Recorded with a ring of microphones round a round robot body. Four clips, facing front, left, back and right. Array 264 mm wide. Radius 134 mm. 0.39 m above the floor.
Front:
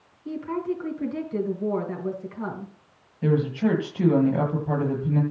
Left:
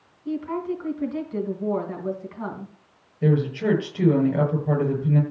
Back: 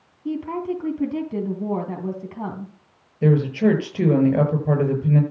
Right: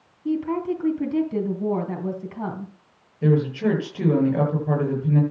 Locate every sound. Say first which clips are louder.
0.2 s a woman speaking: right 3 dB, back 3 dB; 135° right, 3 m
3.2 s a woman speaking: right 1 dB, back 5 dB; 175° left, 8.5 m